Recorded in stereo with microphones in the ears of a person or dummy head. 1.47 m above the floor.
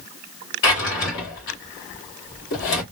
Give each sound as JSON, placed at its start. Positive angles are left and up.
{"t": 0.6, "sound": "a drawer", "side_deg": 60, "distance_m": 1.7}